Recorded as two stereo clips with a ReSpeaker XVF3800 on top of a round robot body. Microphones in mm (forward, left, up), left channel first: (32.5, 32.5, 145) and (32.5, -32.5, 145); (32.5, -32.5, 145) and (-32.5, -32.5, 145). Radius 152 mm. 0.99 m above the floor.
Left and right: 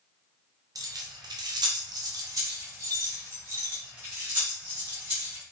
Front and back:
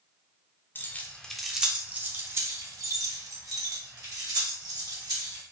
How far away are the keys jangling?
About 0.7 m.